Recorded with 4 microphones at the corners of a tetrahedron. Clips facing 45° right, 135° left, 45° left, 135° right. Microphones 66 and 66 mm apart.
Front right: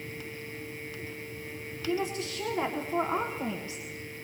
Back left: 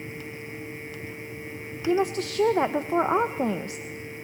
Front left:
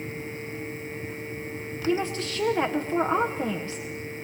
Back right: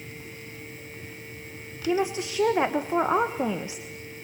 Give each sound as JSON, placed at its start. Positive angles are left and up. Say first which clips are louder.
{"t": 1.9, "sound": "a woman speaking", "louder": "back left 7 dB, back right 1 dB", "azimuth_deg": 150, "distance_m": 1.2}